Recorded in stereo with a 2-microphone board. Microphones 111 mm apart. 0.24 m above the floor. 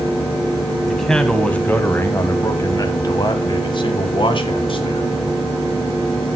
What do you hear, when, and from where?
0.9 s a man speaking: centre (ahead or behind), 1.7 m; by 5.2 s 55° left (ahead or behind), 2.5 m